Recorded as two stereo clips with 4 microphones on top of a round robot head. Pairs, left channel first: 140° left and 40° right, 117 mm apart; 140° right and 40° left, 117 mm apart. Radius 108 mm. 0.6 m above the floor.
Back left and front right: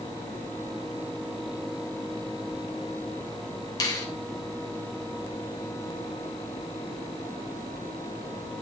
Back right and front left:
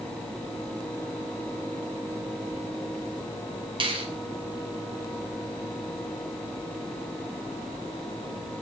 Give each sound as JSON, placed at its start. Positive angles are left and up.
{"t": 3.8, "sound": "a finger snap", "azimuth_deg": 85, "distance_m": 3.0}